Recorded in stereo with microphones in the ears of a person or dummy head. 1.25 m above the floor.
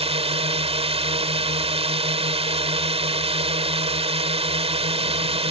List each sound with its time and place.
0.0 s a drone: 30° right (ahead or behind)